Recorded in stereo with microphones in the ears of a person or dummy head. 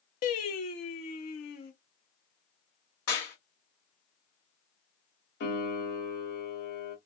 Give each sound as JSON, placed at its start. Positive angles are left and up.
{"t": 0.2, "sound": "singing", "side_deg": 50, "distance_m": 0.8}
{"t": 3.1, "sound": "a clap", "side_deg": 65, "distance_m": 1.8}
{"t": 5.4, "sound": "a piano", "side_deg": 70, "distance_m": 1.9}